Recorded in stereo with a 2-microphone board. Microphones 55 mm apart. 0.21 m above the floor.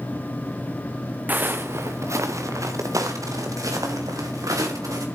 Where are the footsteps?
30° right (ahead or behind), 1.1 m; by 5.1 s 85° right, 4.5 m.